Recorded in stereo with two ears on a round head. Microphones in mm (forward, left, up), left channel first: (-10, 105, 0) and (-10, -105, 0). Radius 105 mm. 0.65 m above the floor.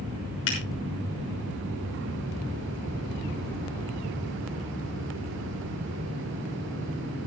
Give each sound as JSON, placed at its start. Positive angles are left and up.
{"t": 0.5, "sound": "a finger snap", "side_deg": 70, "distance_m": 6.0}